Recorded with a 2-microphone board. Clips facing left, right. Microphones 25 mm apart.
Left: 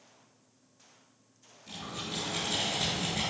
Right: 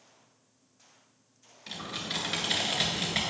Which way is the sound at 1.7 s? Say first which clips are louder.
Right 3 dB; 75° right (ahead or behind).